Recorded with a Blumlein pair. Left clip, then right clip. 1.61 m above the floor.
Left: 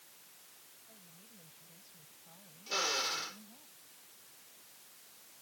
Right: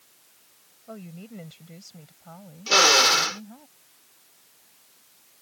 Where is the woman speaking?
50° right; by 3.7 s 55° right.